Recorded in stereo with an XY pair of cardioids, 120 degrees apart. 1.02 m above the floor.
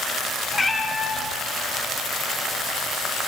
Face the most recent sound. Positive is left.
turn(degrees=20)